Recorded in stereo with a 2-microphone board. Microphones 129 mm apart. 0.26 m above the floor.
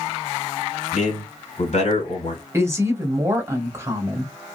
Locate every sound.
0.9 s a man speaking: 65° left (ahead or behind), 2.5 m
2.5 s a woman speaking: 20° right (ahead or behind), 1.1 m